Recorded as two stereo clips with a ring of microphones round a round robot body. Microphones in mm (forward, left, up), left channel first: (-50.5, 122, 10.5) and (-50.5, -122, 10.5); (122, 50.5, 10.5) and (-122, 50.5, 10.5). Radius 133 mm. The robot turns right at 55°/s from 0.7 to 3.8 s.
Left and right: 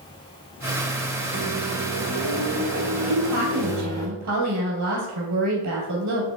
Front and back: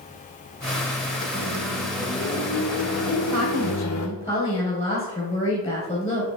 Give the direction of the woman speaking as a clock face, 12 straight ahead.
4 o'clock.